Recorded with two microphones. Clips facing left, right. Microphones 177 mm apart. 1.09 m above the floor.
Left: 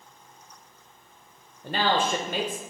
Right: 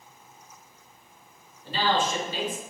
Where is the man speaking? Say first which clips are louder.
Left 1 dB; 60° left (ahead or behind), 0.7 m.